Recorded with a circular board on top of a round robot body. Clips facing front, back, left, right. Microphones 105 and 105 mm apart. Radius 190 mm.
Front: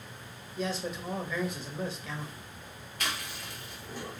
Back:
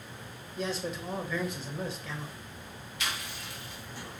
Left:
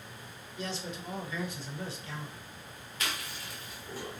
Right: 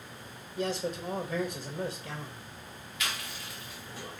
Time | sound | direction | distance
0.6 | a man speaking | 80° right | 0.9 m
3.0 | chewing | 40° left | 2.0 m